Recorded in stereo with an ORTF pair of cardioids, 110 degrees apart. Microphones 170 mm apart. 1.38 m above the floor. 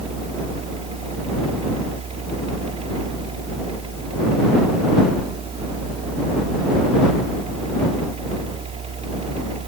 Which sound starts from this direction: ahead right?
A fan, at 0.0 s.